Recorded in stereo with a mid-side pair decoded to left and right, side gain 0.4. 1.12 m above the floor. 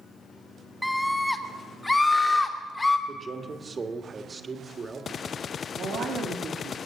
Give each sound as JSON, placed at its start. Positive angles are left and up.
{"t": 0.8, "sound": "a scream", "azimuth_deg": 5, "distance_m": 1.7}
{"t": 3.1, "sound": "a man speaking", "azimuth_deg": -35, "distance_m": 1.7}
{"t": 5.7, "sound": "a woman speaking", "azimuth_deg": -65, "distance_m": 2.5}